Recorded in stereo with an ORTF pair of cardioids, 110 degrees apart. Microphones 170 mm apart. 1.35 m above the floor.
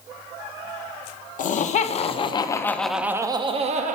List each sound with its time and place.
1.4 s laughter: 50° left, 1.0 m; by 4.0 s 50° right, 0.7 m